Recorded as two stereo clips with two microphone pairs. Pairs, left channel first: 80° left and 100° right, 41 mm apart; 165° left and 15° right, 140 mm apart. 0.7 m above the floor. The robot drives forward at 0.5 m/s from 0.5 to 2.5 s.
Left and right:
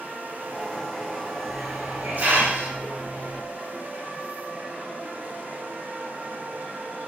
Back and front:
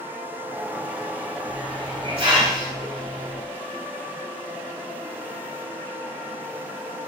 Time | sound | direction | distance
1.5 | a hiss | 55° right | 2 m